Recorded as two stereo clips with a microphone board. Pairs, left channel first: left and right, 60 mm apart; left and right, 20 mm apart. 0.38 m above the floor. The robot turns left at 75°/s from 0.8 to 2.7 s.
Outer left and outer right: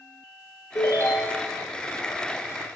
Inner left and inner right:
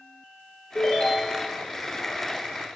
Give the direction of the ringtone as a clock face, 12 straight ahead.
9 o'clock.